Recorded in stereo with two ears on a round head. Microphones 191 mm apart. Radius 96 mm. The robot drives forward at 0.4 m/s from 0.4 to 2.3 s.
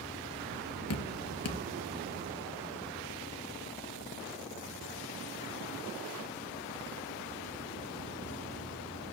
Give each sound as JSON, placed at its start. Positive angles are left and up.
{"t": 0.9, "sound": "dripping", "side_deg": 70, "distance_m": 1.3}